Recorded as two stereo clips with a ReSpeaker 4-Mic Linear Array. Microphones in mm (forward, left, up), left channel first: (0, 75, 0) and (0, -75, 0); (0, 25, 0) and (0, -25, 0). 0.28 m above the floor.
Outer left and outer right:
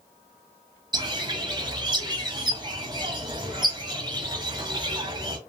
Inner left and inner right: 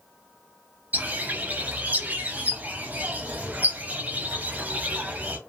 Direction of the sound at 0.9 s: 30° right (ahead or behind).